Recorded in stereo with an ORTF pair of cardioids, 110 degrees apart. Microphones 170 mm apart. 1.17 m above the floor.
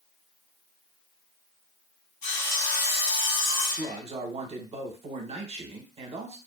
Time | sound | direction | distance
2.2 | sawing | 65° left | 1.3 m
3.8 | a man speaking | 40° right | 0.8 m